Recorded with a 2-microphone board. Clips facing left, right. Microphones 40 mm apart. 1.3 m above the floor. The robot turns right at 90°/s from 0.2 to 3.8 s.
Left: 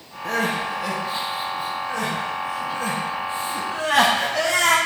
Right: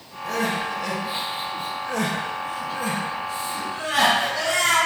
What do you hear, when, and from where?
0.2 s crying: 60° left (ahead or behind), 0.7 m; by 4.8 s 70° left (ahead or behind), 0.7 m